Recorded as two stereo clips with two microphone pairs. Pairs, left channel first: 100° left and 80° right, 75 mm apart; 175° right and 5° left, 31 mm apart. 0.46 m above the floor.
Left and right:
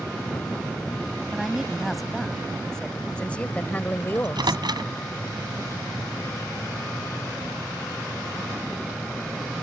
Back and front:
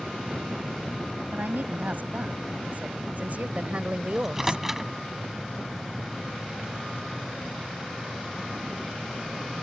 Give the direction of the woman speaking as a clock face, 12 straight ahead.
12 o'clock.